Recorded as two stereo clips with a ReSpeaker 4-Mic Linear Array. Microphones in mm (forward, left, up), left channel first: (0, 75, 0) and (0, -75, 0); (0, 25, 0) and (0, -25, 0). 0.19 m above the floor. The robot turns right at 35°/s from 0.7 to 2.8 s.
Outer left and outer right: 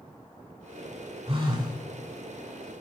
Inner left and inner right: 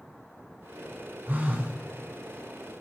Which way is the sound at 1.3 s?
35° right (ahead or behind).